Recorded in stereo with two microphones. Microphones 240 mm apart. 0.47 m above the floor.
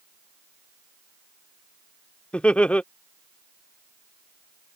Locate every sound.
2.3 s laughter: 5° left (ahead or behind)